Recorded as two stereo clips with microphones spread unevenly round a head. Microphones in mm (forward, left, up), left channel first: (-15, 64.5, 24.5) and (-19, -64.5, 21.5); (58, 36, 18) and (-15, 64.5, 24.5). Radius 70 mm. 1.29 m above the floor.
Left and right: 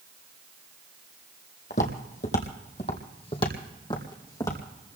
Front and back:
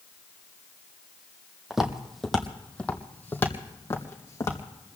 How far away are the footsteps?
About 2.0 m.